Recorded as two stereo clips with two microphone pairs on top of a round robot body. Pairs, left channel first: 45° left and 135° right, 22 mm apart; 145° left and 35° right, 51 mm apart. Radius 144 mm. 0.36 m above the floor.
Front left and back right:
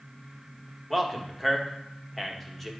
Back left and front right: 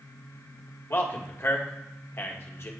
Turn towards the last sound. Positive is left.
turn(degrees=120)